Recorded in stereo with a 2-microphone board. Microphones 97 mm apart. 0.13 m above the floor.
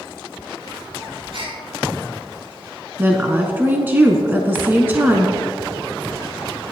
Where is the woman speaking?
20° right (ahead or behind), 1.1 m.